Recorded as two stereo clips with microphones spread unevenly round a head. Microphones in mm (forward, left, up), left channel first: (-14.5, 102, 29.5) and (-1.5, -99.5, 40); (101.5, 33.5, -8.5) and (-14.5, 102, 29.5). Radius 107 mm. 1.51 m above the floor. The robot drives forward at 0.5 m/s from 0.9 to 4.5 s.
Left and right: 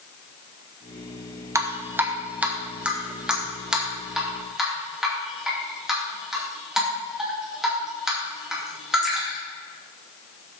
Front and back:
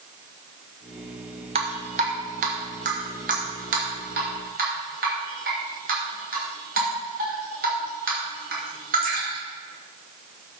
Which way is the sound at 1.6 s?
160° right.